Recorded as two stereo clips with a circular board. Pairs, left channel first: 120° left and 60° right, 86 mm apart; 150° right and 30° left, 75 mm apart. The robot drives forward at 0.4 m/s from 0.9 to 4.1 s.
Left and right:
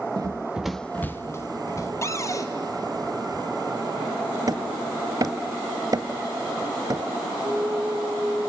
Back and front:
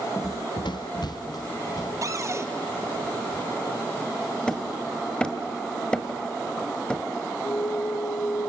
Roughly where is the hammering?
Right.